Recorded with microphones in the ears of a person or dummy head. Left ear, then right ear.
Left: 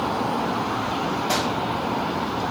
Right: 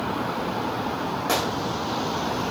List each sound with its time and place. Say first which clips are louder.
1.3 s a gunshot: right 1 dB; 25° right (ahead or behind), 6 m